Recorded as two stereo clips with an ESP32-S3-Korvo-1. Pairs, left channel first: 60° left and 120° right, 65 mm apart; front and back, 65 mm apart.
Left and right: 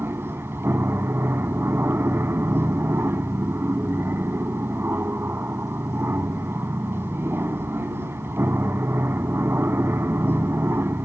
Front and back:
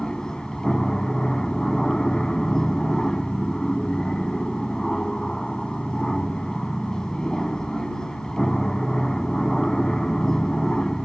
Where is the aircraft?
80° right.